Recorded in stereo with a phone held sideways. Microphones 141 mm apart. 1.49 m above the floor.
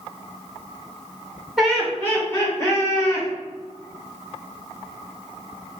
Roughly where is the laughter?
Centre.